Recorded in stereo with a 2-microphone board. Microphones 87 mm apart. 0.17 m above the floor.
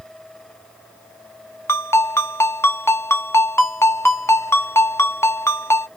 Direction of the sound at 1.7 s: 30° left (ahead or behind).